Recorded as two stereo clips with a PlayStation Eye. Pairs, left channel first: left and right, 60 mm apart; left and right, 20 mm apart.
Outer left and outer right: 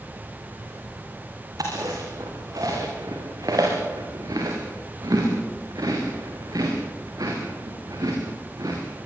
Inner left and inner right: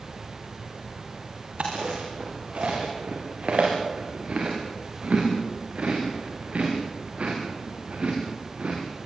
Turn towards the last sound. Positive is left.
turn(degrees=-85)